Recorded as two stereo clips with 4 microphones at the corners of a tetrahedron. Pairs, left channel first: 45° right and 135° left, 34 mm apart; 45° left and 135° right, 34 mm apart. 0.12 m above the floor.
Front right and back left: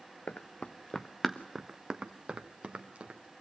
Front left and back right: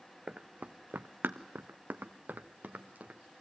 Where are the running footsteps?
80° right, 0.8 m; by 3.2 s 175° right, 1.9 m.